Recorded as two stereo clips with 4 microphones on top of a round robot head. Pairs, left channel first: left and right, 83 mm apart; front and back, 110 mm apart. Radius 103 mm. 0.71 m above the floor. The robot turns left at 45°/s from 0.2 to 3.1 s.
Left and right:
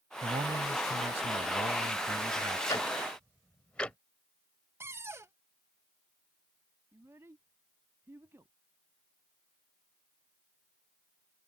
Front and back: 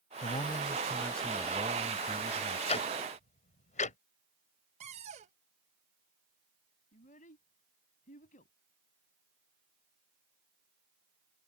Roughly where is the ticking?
Ahead left.